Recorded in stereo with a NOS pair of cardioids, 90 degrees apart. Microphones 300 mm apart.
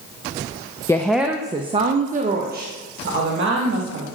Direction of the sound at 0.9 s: 10° left.